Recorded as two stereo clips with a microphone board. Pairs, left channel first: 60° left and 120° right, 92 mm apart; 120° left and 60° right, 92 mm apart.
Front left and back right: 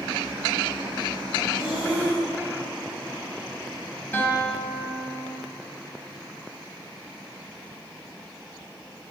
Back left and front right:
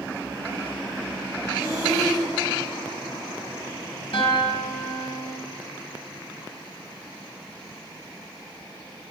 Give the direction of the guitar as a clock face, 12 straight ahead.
8 o'clock.